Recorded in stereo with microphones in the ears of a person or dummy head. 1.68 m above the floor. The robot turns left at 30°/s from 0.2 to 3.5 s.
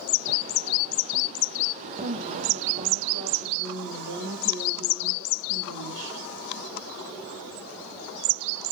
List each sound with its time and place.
2.0 s a woman speaking: 50° right, 2.5 m; by 6.2 s 95° right, 2.5 m